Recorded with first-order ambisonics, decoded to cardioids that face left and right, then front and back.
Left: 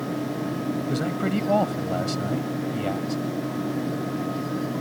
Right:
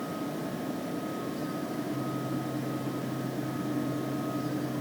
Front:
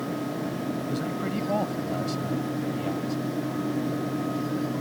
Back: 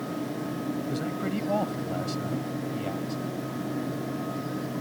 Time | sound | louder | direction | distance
0.9 | a man speaking | left 8 dB, front 1 dB | 90° left | ?